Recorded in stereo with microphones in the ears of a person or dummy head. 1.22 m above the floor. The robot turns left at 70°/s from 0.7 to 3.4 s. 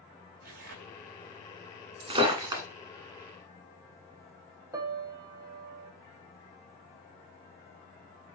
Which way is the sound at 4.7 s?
20° right (ahead or behind).